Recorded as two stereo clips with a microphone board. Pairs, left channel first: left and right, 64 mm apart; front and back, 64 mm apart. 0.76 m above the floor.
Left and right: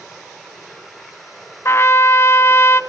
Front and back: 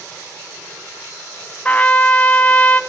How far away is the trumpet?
About 0.9 m.